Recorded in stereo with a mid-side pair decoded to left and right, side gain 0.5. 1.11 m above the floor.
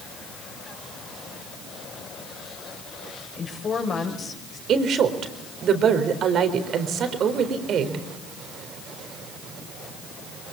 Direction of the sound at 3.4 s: 45° left.